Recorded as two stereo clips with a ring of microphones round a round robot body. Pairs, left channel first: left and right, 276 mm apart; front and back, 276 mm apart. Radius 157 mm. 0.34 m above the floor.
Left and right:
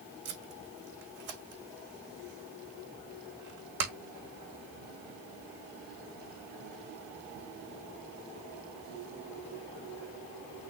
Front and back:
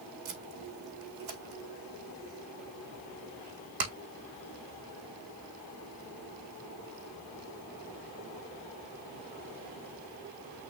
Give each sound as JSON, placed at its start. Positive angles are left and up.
{"t": 0.2, "sound": "tape being pulled", "azimuth_deg": -145, "distance_m": 3.5}